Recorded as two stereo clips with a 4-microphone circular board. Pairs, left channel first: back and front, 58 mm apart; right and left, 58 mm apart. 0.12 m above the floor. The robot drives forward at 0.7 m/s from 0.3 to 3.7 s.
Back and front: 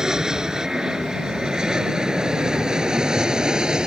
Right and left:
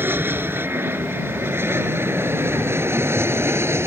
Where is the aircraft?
75° left; by 3.9 s 70° left.